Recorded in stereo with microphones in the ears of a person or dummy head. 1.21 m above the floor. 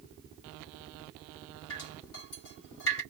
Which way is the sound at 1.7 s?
70° left (ahead or behind).